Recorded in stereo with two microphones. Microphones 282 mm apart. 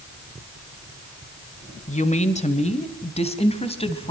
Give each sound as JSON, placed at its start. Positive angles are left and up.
{"t": 1.9, "sound": "a woman speaking", "side_deg": 25, "distance_m": 1.8}